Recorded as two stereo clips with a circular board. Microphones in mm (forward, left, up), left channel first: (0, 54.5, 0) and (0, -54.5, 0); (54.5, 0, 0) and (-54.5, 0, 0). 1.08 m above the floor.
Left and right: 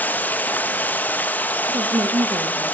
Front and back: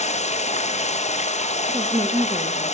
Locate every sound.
0.0 s running water: 15° left, 0.8 m
1.7 s a woman speaking: 125° right, 1.2 m